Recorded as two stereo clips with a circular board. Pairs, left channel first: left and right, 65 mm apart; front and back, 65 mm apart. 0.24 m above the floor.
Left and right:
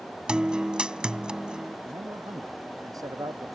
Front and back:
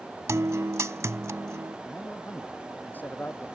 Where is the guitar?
160° right.